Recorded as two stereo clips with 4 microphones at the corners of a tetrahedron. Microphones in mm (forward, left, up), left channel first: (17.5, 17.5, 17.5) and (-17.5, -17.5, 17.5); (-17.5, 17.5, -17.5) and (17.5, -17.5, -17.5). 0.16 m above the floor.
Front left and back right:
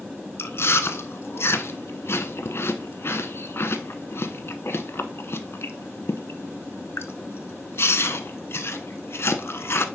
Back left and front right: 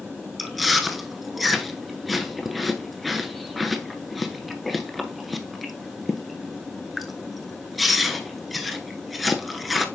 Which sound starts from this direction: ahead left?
Chewing, at 0.4 s.